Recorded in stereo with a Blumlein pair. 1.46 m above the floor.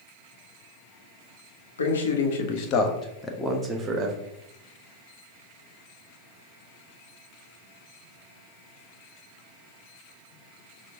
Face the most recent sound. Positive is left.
turn(degrees=-20)